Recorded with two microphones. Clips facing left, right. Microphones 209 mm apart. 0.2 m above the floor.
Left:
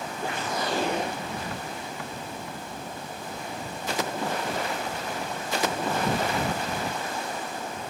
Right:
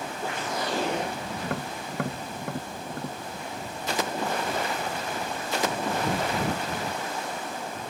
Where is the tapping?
60° right (ahead or behind).